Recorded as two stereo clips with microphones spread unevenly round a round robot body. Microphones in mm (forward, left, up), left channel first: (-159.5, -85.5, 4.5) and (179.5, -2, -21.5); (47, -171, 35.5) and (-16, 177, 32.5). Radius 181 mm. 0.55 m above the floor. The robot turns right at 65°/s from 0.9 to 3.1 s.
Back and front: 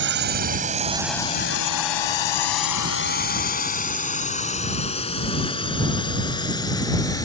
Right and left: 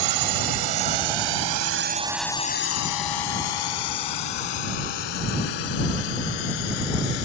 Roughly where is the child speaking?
No child speaking in this recording.